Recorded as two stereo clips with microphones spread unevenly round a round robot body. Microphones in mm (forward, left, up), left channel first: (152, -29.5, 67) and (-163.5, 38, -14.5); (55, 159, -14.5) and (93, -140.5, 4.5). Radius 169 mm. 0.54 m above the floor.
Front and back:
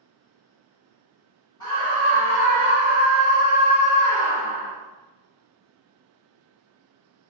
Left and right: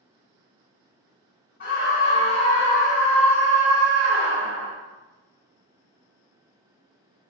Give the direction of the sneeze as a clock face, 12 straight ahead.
I don't hear a sneeze.